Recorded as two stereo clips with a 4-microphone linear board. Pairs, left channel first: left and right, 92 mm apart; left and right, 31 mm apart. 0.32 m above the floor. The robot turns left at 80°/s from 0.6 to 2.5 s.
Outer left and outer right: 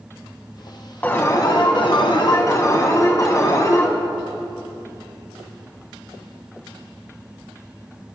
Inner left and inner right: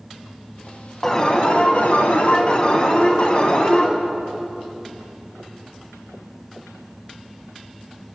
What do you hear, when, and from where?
1.0 s an alarm: 160° left, 1.7 m; by 3.9 s 45° left, 1.7 m